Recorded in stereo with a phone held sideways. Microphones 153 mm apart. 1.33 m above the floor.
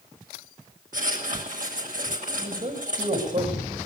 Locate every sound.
0.9 s writing: 60° right (ahead or behind), 7 m
2.4 s a man speaking: 50° right (ahead or behind), 7 m